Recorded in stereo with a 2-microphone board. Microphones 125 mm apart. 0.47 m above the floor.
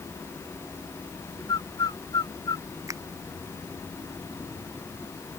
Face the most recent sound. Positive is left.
turn(degrees=-25)  # may be behind; listen again after turning